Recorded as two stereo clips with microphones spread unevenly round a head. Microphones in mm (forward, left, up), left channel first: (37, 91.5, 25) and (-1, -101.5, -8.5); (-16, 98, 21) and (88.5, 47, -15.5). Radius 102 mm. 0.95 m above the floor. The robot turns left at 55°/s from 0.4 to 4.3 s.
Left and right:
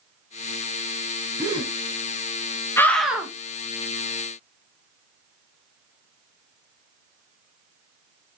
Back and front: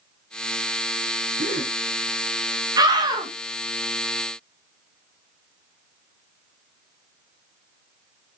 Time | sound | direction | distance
1.4 | a gasp | 20° right | 2.0 m
2.8 | a scream | 5° right | 1.2 m